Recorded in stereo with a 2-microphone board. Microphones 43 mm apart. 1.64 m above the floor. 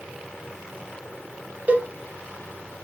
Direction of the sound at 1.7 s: 35° right (ahead or behind).